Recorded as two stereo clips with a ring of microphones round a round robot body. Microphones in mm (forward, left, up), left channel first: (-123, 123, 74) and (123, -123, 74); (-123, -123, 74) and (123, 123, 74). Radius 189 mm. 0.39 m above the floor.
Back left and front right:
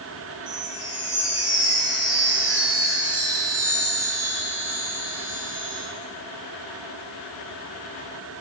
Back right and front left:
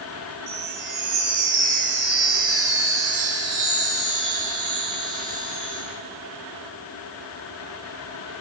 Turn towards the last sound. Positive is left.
turn(degrees=10)